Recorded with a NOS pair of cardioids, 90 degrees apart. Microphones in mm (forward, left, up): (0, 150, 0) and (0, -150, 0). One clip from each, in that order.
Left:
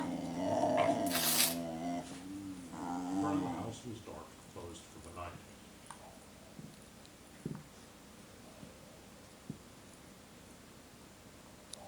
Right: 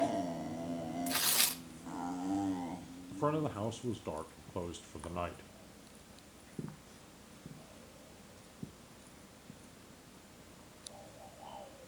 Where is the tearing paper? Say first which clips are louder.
Right 1 dB; 10° right, 0.6 m.